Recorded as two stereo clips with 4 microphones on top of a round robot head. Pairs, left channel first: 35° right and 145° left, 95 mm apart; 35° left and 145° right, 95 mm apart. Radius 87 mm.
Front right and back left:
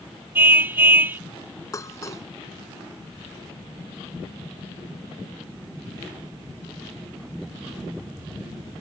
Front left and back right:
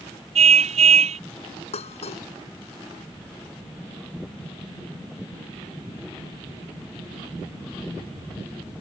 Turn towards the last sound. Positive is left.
turn(degrees=25)